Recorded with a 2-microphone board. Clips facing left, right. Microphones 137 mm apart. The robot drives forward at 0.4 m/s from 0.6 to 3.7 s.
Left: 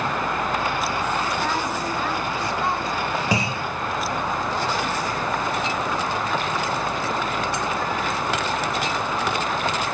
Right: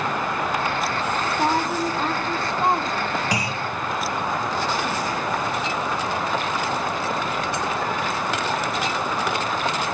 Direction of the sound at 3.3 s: 25° left (ahead or behind).